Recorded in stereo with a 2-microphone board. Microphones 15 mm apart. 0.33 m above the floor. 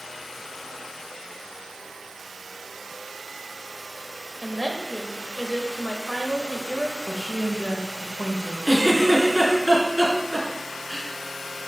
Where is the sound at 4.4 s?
10° left (ahead or behind), 1.1 m.